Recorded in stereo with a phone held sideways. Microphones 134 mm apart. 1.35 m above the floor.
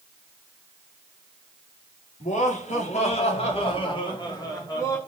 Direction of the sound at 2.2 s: 65° left (ahead or behind).